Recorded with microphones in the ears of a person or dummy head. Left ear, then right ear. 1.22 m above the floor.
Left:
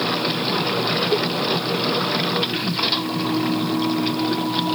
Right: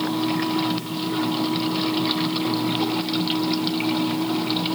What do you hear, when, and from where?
Only background noise.